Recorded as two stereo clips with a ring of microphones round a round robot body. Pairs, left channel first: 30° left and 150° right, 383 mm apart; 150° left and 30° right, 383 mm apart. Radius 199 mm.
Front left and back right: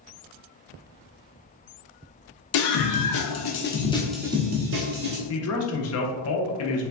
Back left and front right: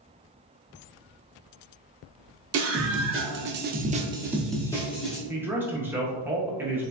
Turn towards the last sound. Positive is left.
turn(degrees=50)